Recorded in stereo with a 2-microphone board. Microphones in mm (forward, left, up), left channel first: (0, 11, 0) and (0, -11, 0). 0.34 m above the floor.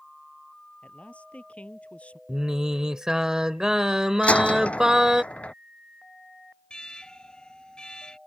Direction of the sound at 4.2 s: 85° left.